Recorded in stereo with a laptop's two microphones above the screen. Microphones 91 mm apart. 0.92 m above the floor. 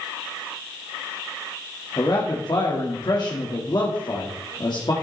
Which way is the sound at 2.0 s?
50° left (ahead or behind).